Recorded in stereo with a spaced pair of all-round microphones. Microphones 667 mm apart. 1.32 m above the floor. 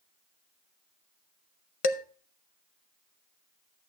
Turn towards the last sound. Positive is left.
turn(degrees=55)  # may be behind; listen again after turning